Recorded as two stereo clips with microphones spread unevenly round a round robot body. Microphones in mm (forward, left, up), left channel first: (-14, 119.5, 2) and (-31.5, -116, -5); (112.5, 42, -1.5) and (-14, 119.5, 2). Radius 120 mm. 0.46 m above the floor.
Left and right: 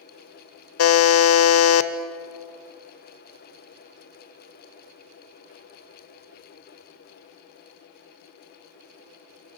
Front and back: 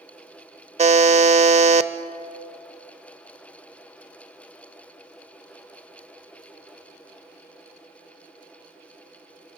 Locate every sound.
0.8 s a buzzer: 105° left, 1.0 m